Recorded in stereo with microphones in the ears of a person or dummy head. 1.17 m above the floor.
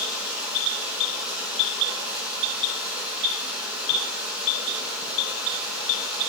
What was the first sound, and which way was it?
Running water, 10° right (ahead or behind).